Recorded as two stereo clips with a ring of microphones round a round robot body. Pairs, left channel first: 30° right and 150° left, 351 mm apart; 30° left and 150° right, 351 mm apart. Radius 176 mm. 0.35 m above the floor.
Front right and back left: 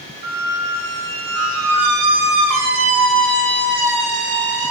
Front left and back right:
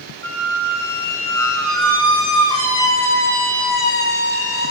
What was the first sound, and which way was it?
A squeak, 110° left.